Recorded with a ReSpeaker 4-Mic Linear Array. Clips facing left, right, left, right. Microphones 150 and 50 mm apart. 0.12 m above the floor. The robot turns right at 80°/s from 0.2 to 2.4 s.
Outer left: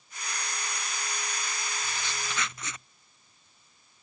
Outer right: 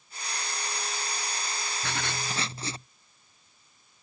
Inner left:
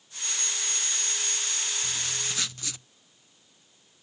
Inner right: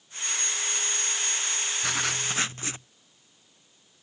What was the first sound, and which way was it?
Writing, 80° right.